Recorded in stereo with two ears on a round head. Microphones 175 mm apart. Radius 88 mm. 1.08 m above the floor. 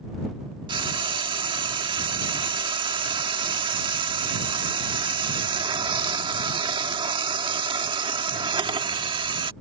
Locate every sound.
0.7 s frying: 25° right (ahead or behind)